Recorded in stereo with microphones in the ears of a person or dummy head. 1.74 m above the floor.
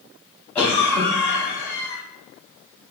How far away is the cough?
About 1.2 m.